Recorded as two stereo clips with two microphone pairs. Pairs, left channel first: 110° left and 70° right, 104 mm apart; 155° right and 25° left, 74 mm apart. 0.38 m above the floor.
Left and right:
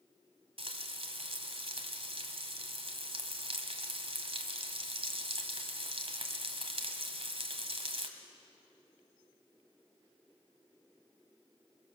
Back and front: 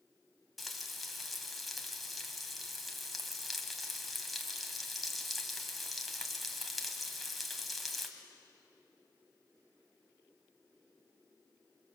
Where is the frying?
65° right, 1.8 m.